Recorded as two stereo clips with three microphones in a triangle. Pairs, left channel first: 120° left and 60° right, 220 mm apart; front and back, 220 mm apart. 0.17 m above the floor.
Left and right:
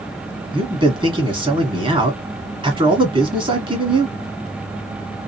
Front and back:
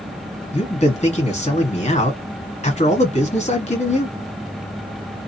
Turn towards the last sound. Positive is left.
turn(degrees=-15)